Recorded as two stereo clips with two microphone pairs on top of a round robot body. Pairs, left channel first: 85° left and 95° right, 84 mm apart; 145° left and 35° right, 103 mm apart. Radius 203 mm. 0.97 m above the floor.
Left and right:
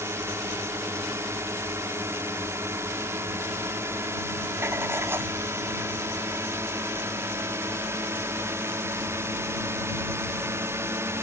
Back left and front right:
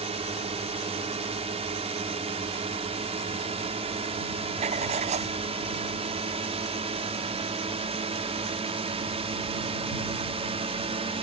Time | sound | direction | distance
0.0 | a drone | 35° right | ?
4.6 | writing | 30° right | ?